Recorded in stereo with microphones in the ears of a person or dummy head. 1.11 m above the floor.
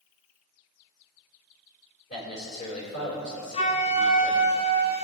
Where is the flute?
25° left (ahead or behind), 0.9 m.